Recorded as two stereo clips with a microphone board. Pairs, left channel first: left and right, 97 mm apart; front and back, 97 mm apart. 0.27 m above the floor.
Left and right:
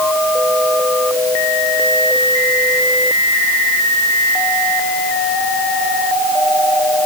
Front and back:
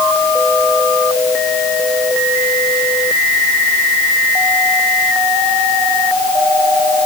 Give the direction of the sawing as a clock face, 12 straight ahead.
I don't hear sawing.